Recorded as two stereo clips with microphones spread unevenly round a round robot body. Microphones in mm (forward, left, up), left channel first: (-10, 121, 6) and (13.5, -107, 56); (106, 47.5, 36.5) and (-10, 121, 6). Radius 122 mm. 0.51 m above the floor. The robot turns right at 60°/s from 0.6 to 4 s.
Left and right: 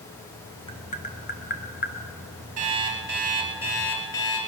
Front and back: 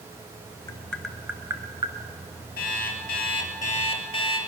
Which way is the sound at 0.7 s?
45° left.